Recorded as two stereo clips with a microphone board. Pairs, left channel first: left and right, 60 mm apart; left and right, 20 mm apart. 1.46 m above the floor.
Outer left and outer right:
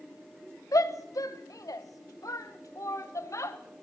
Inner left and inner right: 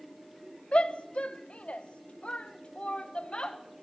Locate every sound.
0.7 s a shout: 70° left (ahead or behind), 1.6 m; by 3.6 s 55° left (ahead or behind), 2.5 m